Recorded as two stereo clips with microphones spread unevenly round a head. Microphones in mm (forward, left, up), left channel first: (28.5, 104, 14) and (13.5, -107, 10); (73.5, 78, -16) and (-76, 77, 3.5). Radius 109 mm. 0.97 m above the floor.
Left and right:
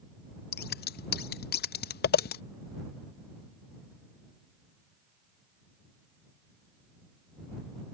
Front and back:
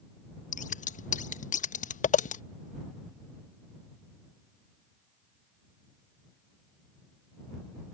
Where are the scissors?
40° left.